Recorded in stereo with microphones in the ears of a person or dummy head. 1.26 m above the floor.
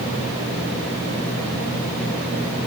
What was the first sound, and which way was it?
Only background noise.